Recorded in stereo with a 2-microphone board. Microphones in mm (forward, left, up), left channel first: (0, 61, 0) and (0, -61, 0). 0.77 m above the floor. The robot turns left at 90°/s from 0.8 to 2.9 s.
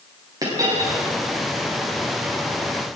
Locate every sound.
0.4 s a dropped coin: 30° right (ahead or behind), 10 m; by 1.0 s 50° right (ahead or behind), 10 m